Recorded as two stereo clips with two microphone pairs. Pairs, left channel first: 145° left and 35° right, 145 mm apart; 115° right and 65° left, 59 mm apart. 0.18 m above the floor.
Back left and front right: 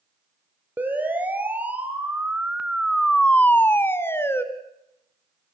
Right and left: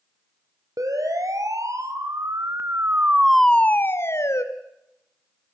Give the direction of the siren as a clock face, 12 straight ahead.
11 o'clock.